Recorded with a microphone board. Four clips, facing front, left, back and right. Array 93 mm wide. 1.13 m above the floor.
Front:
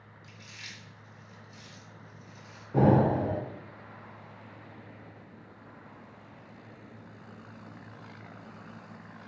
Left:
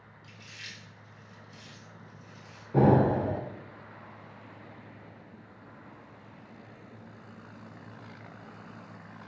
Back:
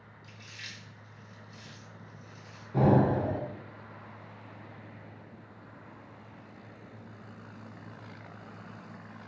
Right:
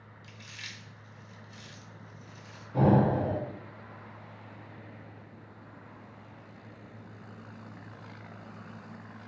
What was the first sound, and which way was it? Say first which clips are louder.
Chewing: right 1 dB, back 1 dB; 90° right.